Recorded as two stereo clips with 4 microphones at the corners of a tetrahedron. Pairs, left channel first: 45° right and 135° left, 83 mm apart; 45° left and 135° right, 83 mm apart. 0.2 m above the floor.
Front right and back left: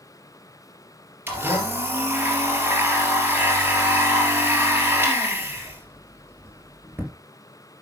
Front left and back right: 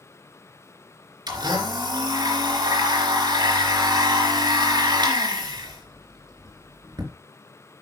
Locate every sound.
1.3 s a blender: 160° right, 3 m